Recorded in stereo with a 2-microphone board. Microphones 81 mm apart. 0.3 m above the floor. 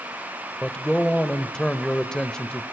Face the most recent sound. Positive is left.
turn(degrees=10)  # may be behind; listen again after turning